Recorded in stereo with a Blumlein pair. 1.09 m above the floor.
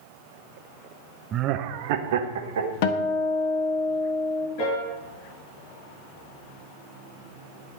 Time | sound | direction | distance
1.3 | laughter | 25° right | 0.6 m
2.8 | a guitar | 45° left | 0.9 m
4.6 | a piano | 40° left | 5 m